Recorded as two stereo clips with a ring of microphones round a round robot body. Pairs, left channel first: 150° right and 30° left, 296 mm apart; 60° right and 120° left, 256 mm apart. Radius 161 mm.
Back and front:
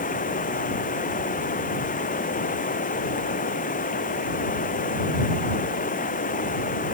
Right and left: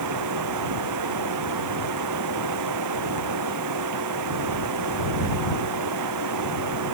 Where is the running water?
145° left.